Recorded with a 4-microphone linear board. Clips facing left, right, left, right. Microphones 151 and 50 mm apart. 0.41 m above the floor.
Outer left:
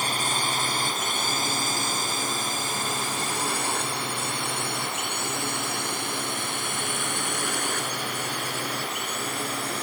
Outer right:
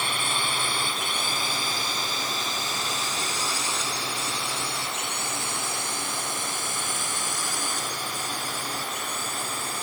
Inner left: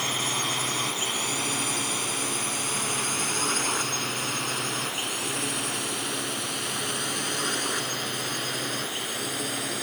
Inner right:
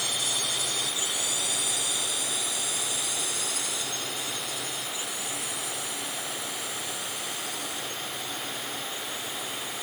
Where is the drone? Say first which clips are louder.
Outer left 2 dB, inner left 3 dB; 40° left (ahead or behind); by 9.8 s 65° left (ahead or behind).